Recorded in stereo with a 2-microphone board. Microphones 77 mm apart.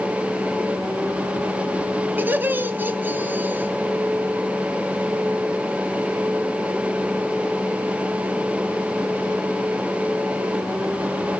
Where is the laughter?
25° right (ahead or behind), 1.2 m.